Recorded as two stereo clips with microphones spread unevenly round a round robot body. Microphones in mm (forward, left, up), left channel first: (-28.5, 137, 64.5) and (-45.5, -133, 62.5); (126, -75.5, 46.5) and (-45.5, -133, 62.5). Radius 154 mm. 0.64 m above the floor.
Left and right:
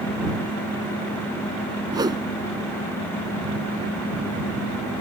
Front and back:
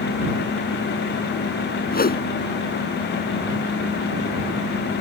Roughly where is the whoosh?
Ahead.